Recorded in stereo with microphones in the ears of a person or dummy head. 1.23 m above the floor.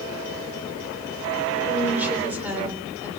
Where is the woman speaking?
10° right (ahead or behind), 4 m.